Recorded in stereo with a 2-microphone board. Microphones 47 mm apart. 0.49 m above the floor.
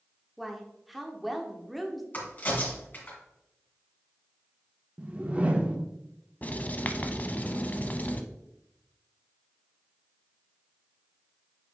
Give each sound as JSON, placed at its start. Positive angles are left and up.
{"t": 0.4, "sound": "a woman speaking", "side_deg": 0, "distance_m": 1.0}
{"t": 2.1, "sound": "a crack", "side_deg": 35, "distance_m": 2.5}
{"t": 5.0, "sound": "a whoosh", "side_deg": -25, "distance_m": 0.8}
{"t": 6.4, "sound": "writing", "side_deg": 30, "distance_m": 0.6}